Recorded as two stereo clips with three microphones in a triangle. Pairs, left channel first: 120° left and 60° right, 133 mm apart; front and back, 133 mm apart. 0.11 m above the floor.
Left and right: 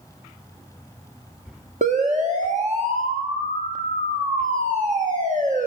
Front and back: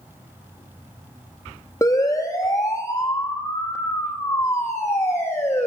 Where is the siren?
65° right, 5 m; by 5.7 s 70° right, 7 m.